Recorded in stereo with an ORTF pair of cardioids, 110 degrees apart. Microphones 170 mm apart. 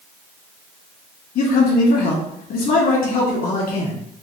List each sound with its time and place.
1.4 s a man speaking: 65° left, 2 m